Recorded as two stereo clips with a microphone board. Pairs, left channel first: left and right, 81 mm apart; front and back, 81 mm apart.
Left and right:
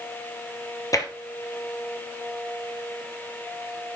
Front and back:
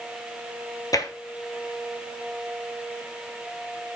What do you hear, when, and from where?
0.9 s tapping: 45° left, 1.3 m